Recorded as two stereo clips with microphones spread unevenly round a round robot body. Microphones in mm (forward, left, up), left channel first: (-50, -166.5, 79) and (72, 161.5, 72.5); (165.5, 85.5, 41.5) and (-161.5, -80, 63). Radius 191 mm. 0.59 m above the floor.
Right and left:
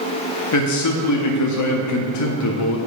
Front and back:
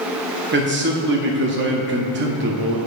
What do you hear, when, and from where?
0.5 s a man speaking: 100° right, 0.9 m